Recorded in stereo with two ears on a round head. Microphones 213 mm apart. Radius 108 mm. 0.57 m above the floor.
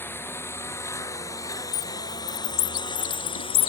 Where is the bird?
65° left (ahead or behind).